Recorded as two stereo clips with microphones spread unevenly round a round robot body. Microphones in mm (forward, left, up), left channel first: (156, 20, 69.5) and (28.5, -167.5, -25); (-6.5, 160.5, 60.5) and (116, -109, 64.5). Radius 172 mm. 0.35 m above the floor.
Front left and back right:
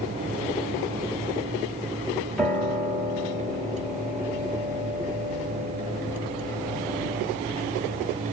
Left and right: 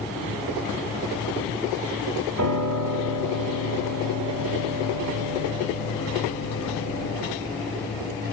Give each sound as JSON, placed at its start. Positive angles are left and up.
{"t": 2.4, "sound": "a piano", "azimuth_deg": -50, "distance_m": 2.5}